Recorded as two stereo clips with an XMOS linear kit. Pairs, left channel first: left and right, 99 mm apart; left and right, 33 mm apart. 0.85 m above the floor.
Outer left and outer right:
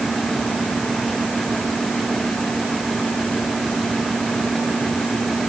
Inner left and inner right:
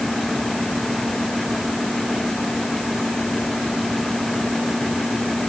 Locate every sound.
Only background noise.